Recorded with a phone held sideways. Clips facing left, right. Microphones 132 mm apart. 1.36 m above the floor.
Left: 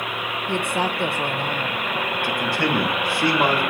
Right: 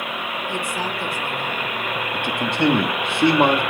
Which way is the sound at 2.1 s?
20° right (ahead or behind).